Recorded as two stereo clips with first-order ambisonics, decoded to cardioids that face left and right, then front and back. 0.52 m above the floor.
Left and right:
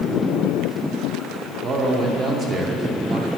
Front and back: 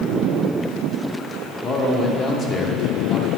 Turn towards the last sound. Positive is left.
turn(degrees=-50)